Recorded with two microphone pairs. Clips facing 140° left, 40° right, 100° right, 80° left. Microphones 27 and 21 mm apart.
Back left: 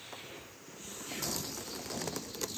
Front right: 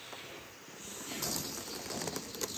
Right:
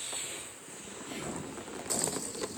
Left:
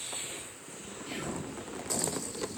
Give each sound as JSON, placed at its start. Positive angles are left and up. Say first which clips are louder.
{"t": 1.1, "sound": "whispering", "louder": "even, left 2 dB", "azimuth_deg": 55, "distance_m": 3.0}